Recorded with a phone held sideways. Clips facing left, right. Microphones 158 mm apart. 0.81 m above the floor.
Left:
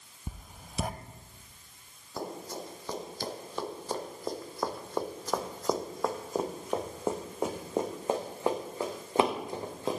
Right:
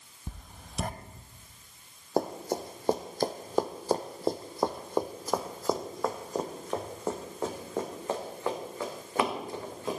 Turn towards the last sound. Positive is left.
turn(degrees=25)  # may be behind; listen again after turning